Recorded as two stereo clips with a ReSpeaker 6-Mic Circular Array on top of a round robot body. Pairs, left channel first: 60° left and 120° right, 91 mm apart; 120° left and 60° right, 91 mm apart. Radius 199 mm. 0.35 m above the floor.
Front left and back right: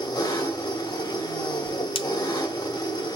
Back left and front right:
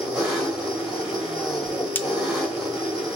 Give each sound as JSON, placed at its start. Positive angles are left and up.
{"t": 0.0, "sound": "an engine running", "azimuth_deg": 25, "distance_m": 2.5}
{"t": 1.6, "sound": "a whoosh", "azimuth_deg": 50, "distance_m": 0.8}